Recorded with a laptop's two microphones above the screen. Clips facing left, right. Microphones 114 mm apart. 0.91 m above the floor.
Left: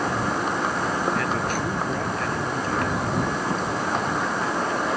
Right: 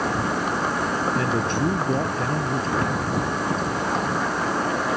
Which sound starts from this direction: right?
A man speaking, at 1.1 s.